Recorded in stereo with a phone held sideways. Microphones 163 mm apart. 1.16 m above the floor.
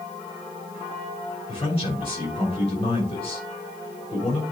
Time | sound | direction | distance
1.5 | a man speaking | 35° left (ahead or behind) | 6 m